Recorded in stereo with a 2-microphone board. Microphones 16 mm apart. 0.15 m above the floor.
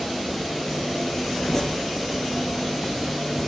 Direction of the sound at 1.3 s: 25° left (ahead or behind).